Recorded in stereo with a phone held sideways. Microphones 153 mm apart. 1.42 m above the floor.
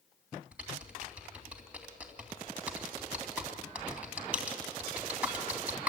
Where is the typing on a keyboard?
10° right (ahead or behind), 3 m.